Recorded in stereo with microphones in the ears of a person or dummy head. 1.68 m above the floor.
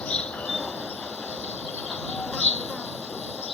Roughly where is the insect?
Centre.